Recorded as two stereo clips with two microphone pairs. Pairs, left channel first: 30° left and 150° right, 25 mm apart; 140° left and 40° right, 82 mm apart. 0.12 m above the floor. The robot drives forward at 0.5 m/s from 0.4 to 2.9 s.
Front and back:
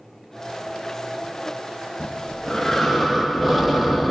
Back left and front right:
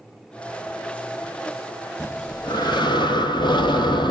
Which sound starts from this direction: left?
Breathing, at 2.0 s.